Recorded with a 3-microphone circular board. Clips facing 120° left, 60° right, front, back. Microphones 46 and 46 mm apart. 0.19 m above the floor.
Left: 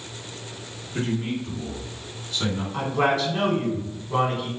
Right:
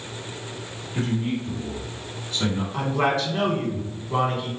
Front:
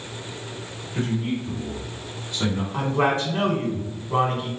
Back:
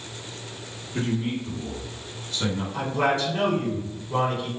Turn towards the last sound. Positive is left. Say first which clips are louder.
# left 1 dB, front 2 dB
turn(degrees=30)